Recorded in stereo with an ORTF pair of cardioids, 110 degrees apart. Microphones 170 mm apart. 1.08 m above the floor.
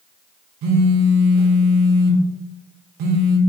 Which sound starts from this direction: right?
A phone buzzing, at 0.6 s.